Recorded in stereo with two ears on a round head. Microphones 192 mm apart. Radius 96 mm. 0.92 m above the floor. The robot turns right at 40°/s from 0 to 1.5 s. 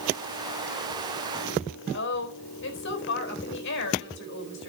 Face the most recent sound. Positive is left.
turn(degrees=60)  # may be behind; listen again after turning